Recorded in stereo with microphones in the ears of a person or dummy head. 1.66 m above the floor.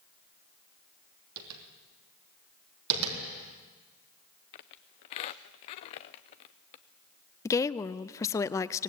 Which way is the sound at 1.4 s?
85° right.